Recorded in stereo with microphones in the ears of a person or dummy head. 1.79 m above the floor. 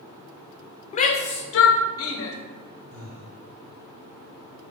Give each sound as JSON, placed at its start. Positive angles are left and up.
{"t": 0.9, "sound": "a shout", "side_deg": 40, "distance_m": 0.5}
{"t": 2.9, "sound": "breathing", "side_deg": -45, "distance_m": 0.7}